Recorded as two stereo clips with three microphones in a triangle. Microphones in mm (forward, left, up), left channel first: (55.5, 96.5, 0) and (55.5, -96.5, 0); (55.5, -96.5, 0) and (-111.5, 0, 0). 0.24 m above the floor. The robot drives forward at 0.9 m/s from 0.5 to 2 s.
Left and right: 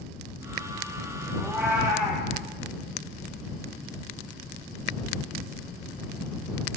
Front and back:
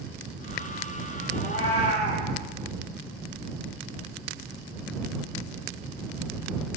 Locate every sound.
1.4 s a cat meowing: 5° right, 6.5 m